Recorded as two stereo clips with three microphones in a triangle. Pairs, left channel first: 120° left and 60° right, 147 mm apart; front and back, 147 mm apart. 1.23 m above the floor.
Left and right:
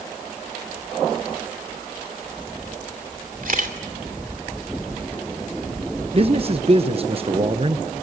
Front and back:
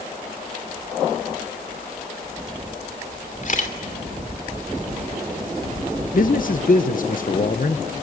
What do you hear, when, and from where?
3.4 s a camera shutter: 35° right, 2.5 m
6.1 s a man speaking: 15° right, 0.9 m